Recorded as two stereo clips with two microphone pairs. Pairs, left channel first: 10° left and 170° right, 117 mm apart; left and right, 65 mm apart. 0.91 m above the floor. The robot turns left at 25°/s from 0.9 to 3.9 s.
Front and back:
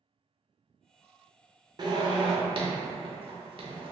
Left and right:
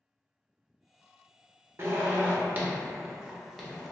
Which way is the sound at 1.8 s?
130° right.